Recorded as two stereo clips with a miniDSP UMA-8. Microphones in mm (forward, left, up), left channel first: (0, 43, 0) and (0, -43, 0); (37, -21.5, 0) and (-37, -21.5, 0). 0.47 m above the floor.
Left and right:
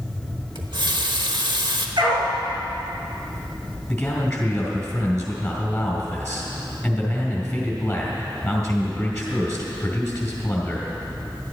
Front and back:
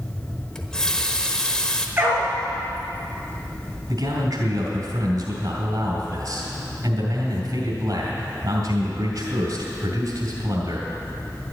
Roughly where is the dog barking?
Behind right.